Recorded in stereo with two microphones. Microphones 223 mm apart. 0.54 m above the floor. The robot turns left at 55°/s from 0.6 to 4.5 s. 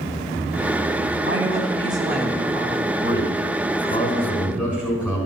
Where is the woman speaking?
125° right, 4 m; by 2.9 s 145° left, 4 m.